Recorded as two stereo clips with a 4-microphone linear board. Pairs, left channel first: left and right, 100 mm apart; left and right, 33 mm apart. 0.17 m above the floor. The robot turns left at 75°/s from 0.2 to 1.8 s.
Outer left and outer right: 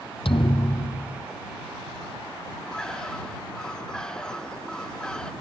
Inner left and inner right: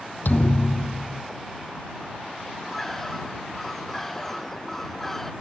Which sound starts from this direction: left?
A thud, at 0.2 s.